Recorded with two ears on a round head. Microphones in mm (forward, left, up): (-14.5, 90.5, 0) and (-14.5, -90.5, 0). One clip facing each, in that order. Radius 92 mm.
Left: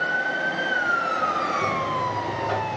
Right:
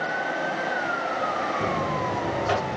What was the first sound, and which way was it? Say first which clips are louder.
A buzzer: right 1 dB; 65° right (ahead or behind).